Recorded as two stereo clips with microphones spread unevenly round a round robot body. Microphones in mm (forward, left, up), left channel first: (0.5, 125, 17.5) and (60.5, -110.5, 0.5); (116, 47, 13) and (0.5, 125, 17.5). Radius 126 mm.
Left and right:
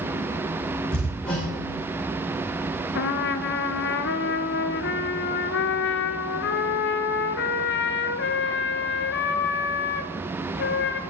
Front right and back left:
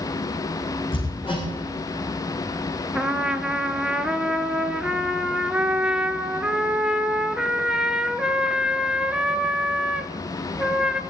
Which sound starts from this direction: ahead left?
A trumpet, at 3.0 s.